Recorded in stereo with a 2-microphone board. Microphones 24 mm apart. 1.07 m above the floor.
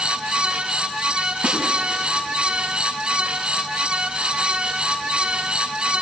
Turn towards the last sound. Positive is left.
turn(degrees=-70)  # may be behind; listen again after turning